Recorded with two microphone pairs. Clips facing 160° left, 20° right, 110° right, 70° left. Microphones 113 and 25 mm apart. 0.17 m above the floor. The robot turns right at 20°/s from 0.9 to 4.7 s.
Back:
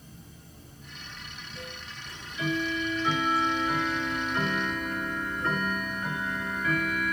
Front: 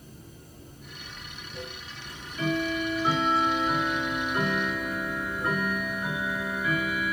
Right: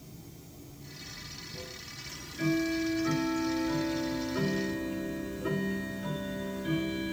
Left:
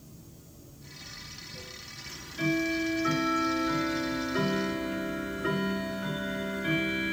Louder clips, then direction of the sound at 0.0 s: Front 2 dB, right 2 dB; 100° right.